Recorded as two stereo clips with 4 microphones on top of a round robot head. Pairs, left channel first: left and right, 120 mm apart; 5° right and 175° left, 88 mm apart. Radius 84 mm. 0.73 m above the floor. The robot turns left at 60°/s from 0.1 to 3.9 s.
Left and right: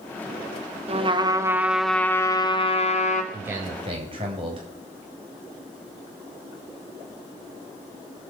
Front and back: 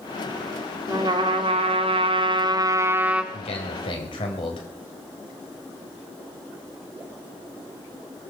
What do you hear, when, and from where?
0.9 s a trumpet: 125° right, 1.9 m; by 3.2 s 95° left, 1.9 m
3.3 s a man speaking: 5° right, 4 m; by 4.7 s 40° right, 4 m